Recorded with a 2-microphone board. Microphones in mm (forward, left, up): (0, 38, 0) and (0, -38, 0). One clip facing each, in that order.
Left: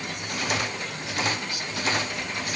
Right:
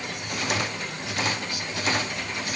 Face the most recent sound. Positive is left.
No sound to turn to.